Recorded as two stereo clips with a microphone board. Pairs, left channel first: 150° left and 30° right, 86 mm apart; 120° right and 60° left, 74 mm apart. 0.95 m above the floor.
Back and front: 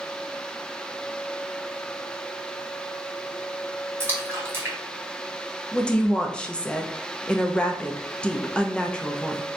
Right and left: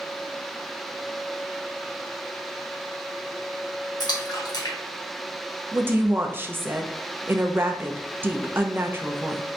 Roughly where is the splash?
Right.